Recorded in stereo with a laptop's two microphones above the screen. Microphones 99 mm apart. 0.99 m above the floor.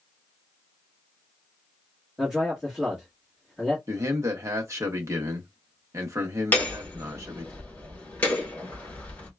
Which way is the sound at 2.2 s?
5° right (ahead or behind).